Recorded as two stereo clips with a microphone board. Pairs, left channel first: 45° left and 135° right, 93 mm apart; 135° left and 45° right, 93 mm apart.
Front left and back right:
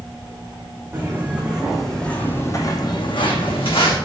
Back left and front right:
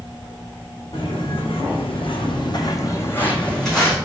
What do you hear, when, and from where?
0.9 s footsteps: 155° left, 1.0 m; by 4.0 s 45° left, 1.0 m